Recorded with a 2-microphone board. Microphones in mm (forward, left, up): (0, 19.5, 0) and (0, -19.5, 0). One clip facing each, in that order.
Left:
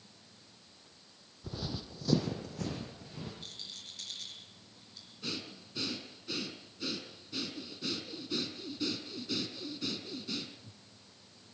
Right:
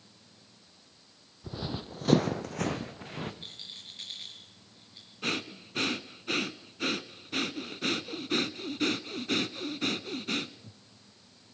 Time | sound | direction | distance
1.4 | running footsteps | 10° right (ahead or behind) | 0.8 m
3.4 | a rattle | 30° right (ahead or behind) | 5 m
5.2 | breathing | 70° right (ahead or behind) | 0.7 m